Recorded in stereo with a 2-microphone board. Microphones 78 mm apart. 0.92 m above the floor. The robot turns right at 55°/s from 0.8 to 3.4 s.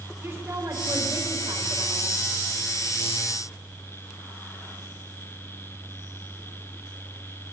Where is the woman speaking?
150° right, 3.5 m; by 2.2 s 70° right, 3.5 m.